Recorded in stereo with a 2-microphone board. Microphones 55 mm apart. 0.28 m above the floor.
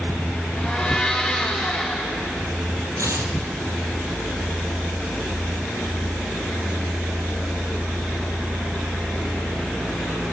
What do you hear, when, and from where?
0.6 s a blender: 15° left (ahead or behind), 8 m
3.0 s tearing paper: 85° right, 2.5 m